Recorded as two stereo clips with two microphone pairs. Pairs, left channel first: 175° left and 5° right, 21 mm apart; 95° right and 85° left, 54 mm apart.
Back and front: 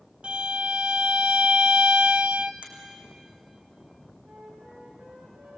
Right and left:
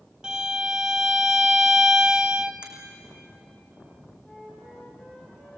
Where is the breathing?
I don't hear breathing.